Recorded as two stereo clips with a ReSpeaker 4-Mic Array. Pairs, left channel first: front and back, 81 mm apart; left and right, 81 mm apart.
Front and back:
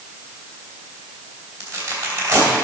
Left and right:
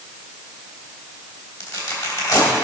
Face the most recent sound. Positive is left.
turn(degrees=120)